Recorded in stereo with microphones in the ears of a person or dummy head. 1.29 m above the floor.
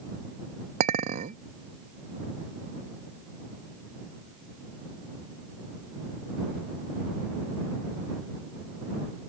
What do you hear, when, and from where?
0.8 s a clink: 40° right (ahead or behind)